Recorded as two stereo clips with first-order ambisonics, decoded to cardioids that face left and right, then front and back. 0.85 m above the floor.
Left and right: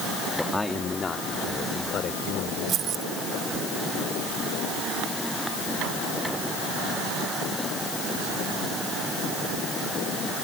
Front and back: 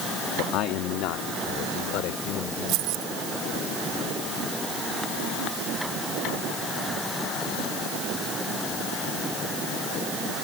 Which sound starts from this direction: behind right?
Keys jangling, at 2.7 s.